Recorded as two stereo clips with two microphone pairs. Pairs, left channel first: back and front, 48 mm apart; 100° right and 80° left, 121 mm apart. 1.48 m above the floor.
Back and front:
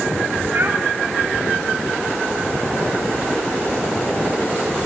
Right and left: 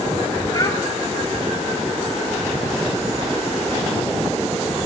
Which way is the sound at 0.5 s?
40° right.